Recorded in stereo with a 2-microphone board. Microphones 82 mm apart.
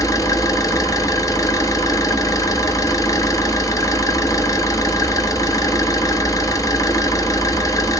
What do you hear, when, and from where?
0.0 s an engine running: 45° left (ahead or behind), 0.8 m